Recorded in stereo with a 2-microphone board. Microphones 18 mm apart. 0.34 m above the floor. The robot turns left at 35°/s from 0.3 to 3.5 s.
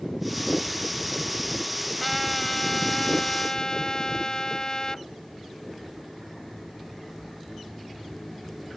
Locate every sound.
2.0 s a trumpet: 175° left; by 5.0 s 125° left